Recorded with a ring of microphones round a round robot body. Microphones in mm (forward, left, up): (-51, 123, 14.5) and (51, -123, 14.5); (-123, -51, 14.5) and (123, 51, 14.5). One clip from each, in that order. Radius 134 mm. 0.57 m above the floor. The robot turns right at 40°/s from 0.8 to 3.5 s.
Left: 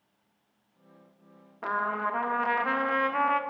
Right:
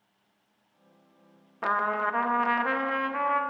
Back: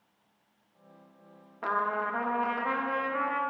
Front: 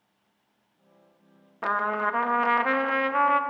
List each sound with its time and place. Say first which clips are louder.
1.6 s a trumpet: right 3 dB, front 4 dB; 25° right, 0.6 m; by 3.4 s 45° left, 0.6 m